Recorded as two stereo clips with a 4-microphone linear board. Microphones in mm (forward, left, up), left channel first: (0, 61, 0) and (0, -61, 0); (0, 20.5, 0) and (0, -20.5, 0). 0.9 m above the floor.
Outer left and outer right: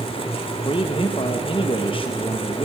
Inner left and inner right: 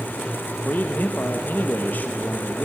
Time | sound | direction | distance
0.6 | a man speaking | 45° left (ahead or behind) | 1.1 m